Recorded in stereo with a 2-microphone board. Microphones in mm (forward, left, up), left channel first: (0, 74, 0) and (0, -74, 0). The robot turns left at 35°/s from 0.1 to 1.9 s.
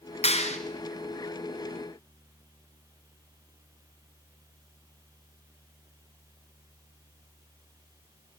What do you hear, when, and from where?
0.2 s a clap: 45° left (ahead or behind), 2 m; by 0.6 s 50° left (ahead or behind), 2 m